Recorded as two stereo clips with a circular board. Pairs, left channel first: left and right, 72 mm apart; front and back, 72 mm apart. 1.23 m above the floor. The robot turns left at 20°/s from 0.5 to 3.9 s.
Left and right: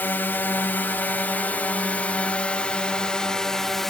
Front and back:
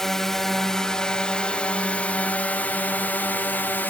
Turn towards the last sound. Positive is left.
turn(degrees=10)